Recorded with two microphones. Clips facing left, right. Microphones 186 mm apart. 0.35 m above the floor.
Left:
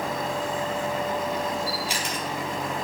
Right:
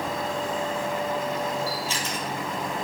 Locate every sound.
1.7 s a camera shutter: 15° left (ahead or behind), 3.5 m